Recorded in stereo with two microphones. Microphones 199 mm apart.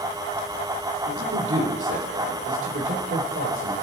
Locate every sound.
1.1 s a man speaking: 75° right (ahead or behind), 5 m; by 3.7 s 80° right, 7.5 m